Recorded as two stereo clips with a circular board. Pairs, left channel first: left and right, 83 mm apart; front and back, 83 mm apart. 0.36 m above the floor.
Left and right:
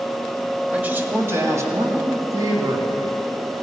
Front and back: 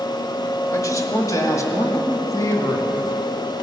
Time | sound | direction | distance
0.7 | a man speaking | 20° right | 1.1 m